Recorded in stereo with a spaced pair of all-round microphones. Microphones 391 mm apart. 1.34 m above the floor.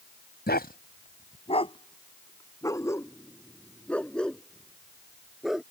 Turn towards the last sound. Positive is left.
turn(degrees=0)  # may be behind; listen again after turning